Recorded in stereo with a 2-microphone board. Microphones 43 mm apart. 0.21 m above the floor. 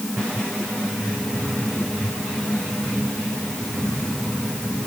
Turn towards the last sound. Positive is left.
No sound to turn to.